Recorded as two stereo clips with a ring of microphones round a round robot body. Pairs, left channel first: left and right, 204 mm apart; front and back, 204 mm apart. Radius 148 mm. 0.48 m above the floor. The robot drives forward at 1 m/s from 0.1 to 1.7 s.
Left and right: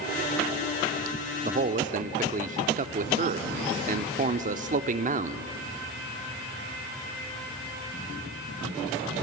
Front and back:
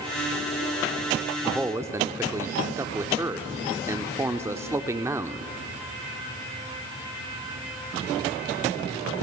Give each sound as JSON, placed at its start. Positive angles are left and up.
{"t": 1.4, "sound": "a man speaking", "azimuth_deg": -80, "distance_m": 0.8}